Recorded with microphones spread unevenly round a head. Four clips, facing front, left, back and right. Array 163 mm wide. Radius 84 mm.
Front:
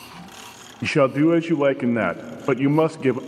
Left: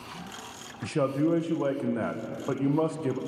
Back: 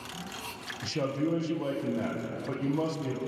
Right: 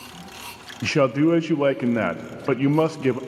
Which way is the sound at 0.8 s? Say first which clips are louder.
Right 7 dB, front 13 dB; 30° right.